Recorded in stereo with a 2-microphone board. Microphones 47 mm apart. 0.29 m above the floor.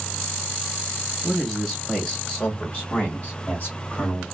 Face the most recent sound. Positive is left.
turn(degrees=50)  # may be behind; listen again after turning